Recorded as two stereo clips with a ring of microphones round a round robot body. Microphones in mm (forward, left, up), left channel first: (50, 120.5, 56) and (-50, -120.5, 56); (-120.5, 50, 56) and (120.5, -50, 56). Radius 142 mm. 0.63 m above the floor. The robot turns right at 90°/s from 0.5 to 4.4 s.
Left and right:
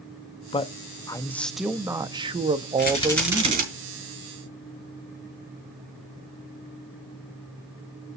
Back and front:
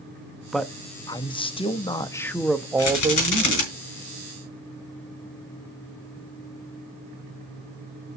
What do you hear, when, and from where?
0.5 s a man speaking: 65° left, 0.8 m; by 3.7 s 10° right, 0.8 m
2.8 s a rattle: 115° left, 6.5 m; by 3.6 s 165° right, 6.5 m